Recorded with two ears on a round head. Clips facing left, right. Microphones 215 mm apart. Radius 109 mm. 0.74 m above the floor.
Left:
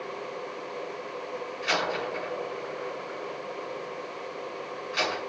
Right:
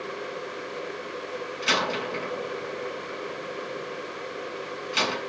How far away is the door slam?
About 6.5 m.